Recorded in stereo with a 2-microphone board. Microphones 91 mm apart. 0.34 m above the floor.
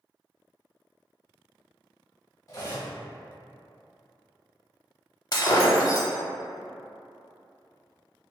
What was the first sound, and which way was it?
Cutlery clinking, 35° left (ahead or behind).